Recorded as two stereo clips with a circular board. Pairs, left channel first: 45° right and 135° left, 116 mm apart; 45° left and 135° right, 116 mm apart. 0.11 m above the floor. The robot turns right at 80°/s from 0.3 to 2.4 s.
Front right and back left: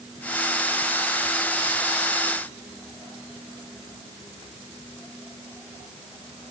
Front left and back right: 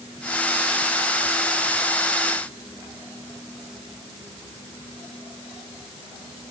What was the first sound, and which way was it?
Only background noise.